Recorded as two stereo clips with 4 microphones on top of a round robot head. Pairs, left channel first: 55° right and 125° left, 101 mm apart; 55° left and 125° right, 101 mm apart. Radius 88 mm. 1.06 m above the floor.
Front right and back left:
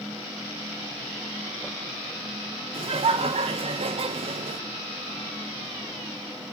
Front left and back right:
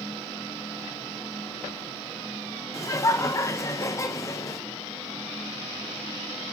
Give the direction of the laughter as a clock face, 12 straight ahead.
8 o'clock.